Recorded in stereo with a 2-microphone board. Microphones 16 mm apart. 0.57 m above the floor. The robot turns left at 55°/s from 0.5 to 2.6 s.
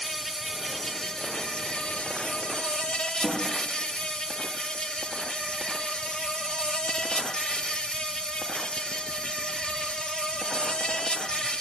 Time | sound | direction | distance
0.0 | an insect | 175° right | 0.7 m
3.2 | a snare drum | 75° left (ahead or behind) | 6 m